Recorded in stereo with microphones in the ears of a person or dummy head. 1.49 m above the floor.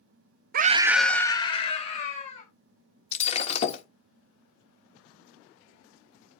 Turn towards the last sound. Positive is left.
turn(degrees=40)  # may be behind; listen again after turning